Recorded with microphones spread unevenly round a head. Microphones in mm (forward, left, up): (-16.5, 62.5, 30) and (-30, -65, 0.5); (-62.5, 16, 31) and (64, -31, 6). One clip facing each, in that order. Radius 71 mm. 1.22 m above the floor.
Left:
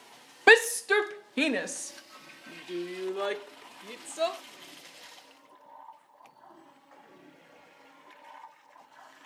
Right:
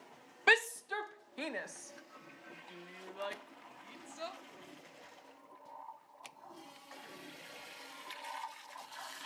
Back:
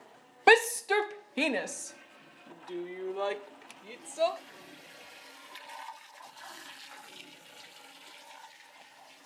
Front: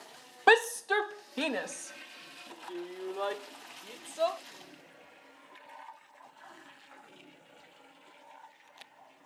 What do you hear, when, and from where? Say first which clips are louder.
0.5 s a shout: left 12 dB, back 2 dB; 70° left; by 4.4 s 80° left